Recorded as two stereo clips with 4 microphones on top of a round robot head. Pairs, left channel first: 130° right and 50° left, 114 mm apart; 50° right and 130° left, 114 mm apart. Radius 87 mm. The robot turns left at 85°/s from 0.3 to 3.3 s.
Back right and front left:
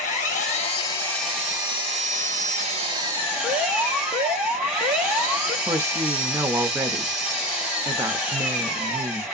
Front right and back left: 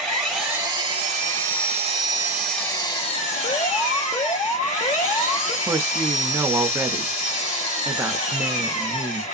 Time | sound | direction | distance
0.0 | an engine running | 140° right | 1.8 m
3.4 | an alarm | 25° right | 1.0 m
5.7 | a woman speaking | 90° left | 0.6 m